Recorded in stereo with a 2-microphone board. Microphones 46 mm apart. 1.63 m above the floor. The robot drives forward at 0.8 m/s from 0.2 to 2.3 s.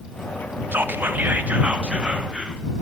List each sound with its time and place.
0.7 s whispering: 45° right (ahead or behind), 0.6 m; by 2.6 s 20° right (ahead or behind), 1.3 m